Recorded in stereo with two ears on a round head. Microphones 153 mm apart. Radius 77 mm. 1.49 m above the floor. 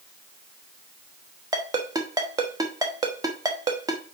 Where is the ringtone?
20° right (ahead or behind), 1.0 m.